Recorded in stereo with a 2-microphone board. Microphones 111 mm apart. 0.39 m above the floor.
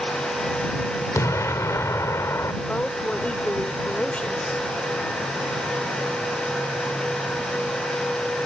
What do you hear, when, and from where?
1.1 s an explosion: 25° left (ahead or behind)
2.6 s a woman speaking: 10° left (ahead or behind)